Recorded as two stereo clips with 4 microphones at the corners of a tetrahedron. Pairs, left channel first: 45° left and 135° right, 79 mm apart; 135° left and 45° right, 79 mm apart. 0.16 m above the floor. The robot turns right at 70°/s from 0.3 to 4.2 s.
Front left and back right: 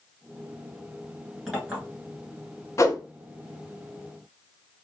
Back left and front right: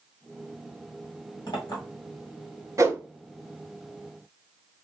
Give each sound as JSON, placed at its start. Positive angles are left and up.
{"t": 1.5, "sound": "a clink", "azimuth_deg": 135, "distance_m": 1.8}
{"t": 2.8, "sound": "a whoosh", "azimuth_deg": -5, "distance_m": 0.6}